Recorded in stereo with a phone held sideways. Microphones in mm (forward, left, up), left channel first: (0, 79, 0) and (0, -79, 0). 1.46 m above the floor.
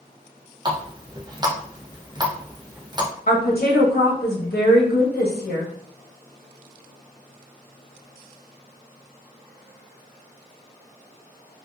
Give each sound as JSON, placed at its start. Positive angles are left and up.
{"t": 0.7, "sound": "a running tap", "side_deg": -25, "distance_m": 0.6}
{"t": 3.3, "sound": "a woman speaking", "side_deg": 85, "distance_m": 0.8}